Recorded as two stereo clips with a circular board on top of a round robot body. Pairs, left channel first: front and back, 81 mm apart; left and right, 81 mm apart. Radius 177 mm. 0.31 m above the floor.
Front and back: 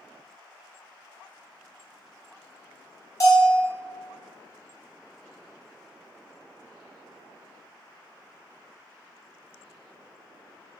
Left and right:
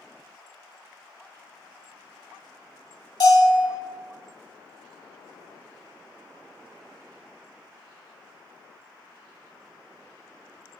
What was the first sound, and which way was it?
A bell, 50° left.